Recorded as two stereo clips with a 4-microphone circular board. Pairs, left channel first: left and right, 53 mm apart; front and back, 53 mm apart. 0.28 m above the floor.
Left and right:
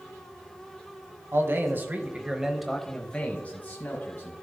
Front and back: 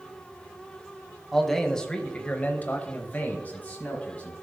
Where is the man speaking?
85° right, 1.5 m; by 4.4 s 50° left, 2.5 m.